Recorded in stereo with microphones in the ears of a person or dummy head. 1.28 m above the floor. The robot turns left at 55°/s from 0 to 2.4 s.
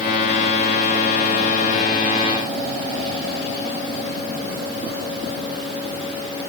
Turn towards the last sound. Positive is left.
No sound to turn to.